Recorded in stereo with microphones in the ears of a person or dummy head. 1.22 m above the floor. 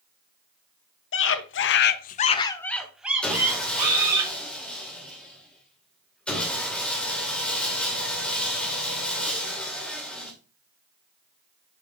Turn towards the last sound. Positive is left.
turn(degrees=5)  # may be behind; listen again after turning